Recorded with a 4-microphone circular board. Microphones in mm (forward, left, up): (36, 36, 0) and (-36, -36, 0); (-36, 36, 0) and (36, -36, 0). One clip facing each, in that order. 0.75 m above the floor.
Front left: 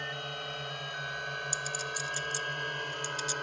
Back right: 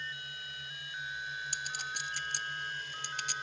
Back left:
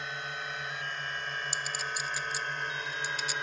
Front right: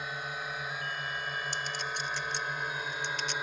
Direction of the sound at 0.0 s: 40° left.